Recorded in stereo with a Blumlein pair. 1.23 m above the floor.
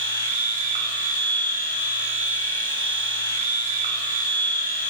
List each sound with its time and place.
0.0 s a machine running: 60° right, 0.8 m